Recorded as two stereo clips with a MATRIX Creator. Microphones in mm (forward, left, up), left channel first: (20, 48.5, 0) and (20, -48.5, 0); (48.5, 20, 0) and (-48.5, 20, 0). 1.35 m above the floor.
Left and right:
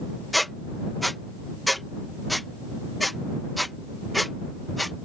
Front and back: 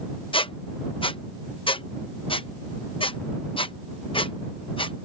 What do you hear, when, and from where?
0.3 s a squeak: straight ahead